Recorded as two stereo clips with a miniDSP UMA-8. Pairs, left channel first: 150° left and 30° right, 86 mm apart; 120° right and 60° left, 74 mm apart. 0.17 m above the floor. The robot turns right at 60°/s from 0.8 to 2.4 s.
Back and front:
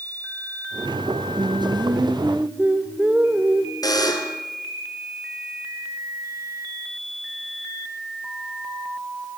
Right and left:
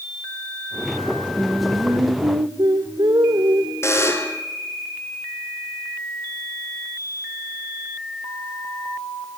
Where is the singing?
20° right, 2 m; by 3.7 s 40° left, 2 m.